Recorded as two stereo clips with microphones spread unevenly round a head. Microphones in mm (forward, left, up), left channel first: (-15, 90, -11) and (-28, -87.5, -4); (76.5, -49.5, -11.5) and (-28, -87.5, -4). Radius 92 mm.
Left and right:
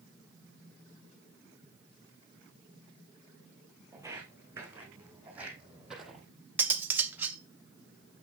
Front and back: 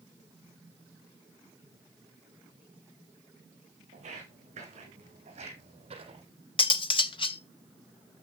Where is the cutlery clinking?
15° right, 0.5 m.